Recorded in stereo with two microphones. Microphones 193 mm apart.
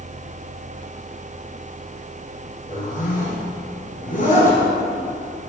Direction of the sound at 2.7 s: 45° left (ahead or behind).